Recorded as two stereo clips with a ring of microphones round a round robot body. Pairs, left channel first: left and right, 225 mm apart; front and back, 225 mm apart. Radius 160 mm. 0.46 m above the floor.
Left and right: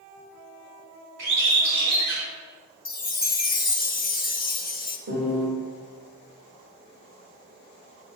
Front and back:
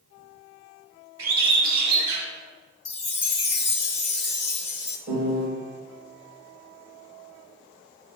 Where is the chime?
40° left, 0.9 m.